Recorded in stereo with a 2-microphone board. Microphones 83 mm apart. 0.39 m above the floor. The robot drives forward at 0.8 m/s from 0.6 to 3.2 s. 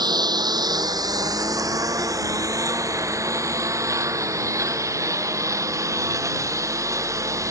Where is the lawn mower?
60° right (ahead or behind); by 7.5 s 40° right (ahead or behind).